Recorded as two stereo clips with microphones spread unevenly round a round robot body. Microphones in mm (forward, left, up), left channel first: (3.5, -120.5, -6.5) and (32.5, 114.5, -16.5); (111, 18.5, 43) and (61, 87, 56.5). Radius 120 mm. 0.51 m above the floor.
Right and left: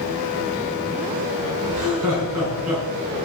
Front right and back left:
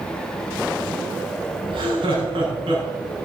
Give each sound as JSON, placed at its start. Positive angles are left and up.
{"t": 1.7, "sound": "laughter", "azimuth_deg": 110, "distance_m": 5.0}